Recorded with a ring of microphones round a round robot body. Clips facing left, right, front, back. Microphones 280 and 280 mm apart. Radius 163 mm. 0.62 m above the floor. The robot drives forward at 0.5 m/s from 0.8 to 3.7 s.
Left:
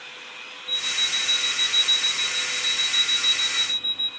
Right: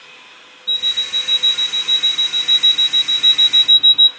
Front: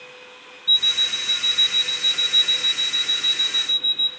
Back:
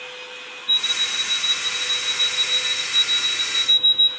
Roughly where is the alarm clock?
Ahead right.